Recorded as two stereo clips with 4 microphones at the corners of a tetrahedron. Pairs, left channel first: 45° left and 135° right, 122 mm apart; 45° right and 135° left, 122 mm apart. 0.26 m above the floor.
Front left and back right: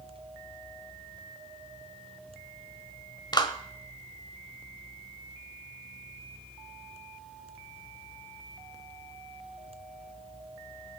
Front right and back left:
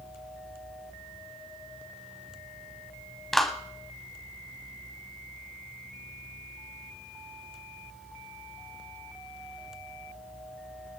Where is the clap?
40° left, 1.4 m.